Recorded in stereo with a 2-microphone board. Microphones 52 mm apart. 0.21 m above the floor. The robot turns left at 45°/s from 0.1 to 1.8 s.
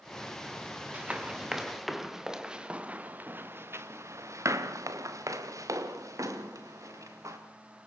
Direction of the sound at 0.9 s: 30° right (ahead or behind).